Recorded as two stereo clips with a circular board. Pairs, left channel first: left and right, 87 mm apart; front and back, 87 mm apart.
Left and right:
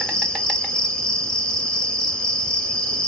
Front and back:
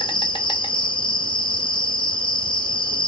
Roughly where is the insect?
Ahead.